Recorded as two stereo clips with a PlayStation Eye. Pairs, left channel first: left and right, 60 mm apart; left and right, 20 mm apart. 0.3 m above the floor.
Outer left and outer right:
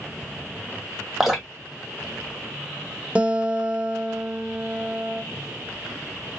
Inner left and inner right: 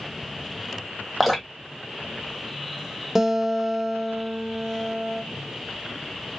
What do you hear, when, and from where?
1.2 s dripping: 5° right (ahead or behind), 1.1 m
3.1 s a guitar: 20° right (ahead or behind), 0.6 m